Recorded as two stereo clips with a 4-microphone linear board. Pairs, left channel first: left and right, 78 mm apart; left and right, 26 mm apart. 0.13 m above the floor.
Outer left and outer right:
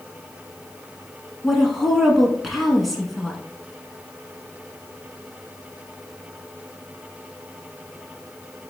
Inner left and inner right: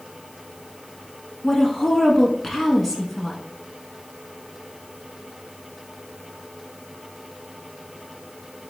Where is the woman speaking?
Centre (ahead or behind), 1.1 m.